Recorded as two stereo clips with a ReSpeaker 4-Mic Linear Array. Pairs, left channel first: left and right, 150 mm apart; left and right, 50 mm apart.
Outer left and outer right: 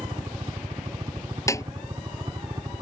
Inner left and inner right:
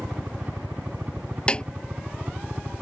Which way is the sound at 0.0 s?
30° right (ahead or behind).